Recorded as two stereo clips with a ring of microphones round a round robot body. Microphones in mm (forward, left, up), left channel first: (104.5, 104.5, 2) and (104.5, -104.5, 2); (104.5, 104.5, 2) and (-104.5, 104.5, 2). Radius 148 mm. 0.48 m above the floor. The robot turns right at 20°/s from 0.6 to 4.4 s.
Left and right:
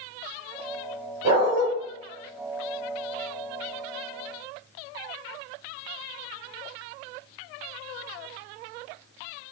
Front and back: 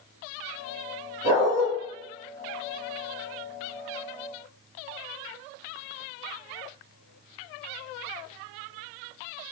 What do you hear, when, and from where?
1.2 s a dog barking: 115° right, 1.8 m; by 1.7 s 110° right, 1.8 m